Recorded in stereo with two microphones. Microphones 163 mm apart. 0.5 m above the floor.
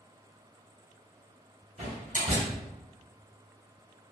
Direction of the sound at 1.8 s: 50° right (ahead or behind).